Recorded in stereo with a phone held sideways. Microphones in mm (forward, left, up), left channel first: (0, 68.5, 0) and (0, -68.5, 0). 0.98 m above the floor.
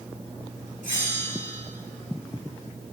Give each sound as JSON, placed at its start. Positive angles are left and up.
{"t": 0.8, "sound": "a bell", "side_deg": 80, "distance_m": 5.0}